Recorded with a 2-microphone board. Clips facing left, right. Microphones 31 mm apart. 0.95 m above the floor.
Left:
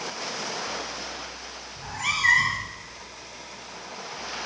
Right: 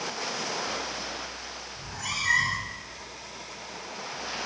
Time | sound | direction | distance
1.8 | a cat meowing | 75° left (ahead or behind) | 0.7 m